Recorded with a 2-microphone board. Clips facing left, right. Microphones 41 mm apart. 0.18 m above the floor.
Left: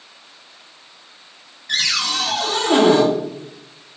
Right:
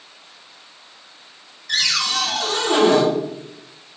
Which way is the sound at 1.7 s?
25° left (ahead or behind).